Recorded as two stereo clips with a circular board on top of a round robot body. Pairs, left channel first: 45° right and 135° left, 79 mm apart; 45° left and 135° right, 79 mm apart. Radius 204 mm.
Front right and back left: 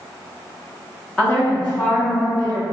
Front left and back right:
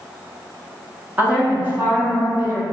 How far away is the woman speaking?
About 1.2 m.